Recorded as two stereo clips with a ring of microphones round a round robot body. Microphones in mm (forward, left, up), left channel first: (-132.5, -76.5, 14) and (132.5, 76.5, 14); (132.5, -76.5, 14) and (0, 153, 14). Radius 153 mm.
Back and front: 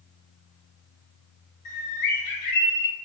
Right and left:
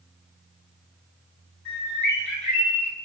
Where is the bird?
140° right, 1.5 m.